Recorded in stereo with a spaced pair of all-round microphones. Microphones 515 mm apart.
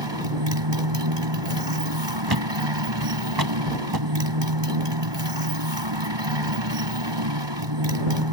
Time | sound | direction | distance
0.0 | a motorcycle | 55° right (ahead or behind) | ?
2.3 | a thud | 45° right (ahead or behind) | ?